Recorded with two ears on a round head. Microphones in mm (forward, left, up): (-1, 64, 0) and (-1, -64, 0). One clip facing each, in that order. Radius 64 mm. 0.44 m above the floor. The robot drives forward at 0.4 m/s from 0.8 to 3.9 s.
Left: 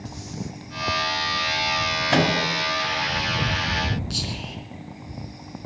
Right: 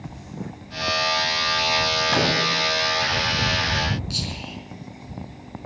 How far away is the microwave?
About 2 m.